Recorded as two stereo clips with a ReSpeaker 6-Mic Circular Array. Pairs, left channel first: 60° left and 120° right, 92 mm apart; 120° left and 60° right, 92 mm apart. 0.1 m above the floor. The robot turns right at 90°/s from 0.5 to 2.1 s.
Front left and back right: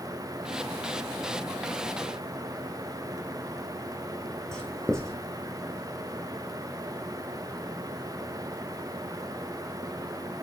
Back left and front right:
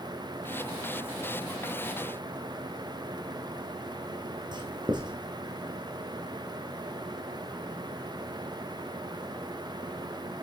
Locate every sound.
4.5 s writing: 25° right, 3 m